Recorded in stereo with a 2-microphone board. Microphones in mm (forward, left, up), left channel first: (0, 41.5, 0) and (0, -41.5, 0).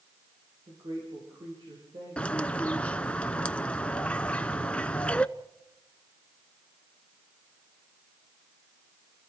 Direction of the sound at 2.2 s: 15° left (ahead or behind).